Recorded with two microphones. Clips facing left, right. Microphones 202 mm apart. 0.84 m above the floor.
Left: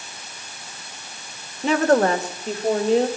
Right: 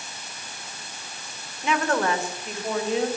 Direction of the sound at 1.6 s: 40° left (ahead or behind).